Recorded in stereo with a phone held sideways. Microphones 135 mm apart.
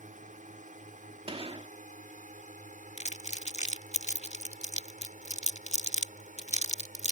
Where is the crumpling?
60° left (ahead or behind).